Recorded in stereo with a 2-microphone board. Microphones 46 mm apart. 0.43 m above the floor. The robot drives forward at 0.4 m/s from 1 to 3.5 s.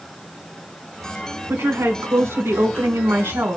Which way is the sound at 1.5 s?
75° right (ahead or behind).